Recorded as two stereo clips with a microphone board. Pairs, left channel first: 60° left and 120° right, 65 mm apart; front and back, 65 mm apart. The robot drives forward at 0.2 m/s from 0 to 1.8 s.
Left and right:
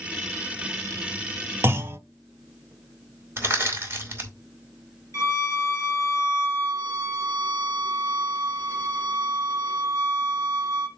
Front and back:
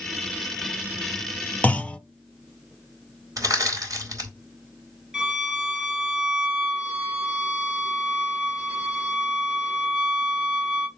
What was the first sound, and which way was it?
A clunk, 70° right.